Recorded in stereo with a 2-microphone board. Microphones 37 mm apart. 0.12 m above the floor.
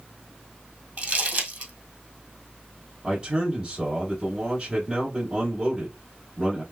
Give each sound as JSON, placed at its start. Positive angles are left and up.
{"t": 1.0, "sound": "crumpling", "side_deg": -50, "distance_m": 1.7}
{"t": 3.0, "sound": "a man speaking", "side_deg": -20, "distance_m": 1.7}